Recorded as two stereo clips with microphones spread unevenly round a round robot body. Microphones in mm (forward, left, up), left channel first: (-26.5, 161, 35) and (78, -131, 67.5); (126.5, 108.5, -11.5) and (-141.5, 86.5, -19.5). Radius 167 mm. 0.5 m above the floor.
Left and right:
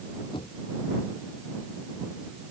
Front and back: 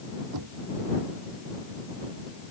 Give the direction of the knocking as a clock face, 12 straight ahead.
6 o'clock.